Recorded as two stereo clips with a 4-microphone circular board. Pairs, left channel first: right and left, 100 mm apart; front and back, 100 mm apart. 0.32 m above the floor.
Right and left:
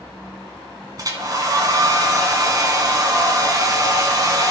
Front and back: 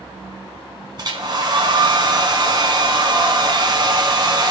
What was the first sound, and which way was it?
A hair dryer, 140° left.